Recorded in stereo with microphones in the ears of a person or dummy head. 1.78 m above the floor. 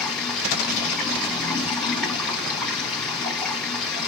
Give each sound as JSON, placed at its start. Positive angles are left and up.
{"t": 0.0, "sound": "running water", "side_deg": -5, "distance_m": 2.5}